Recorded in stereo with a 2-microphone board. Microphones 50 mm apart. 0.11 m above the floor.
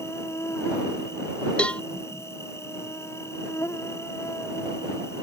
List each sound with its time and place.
0.0 s an insect: 70° left (ahead or behind)
1.6 s a cowbell: 20° left (ahead or behind)